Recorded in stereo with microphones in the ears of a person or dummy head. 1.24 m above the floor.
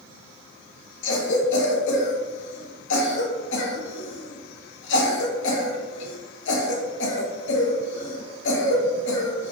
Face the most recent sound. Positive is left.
turn(degrees=75)  # may be behind; listen again after turning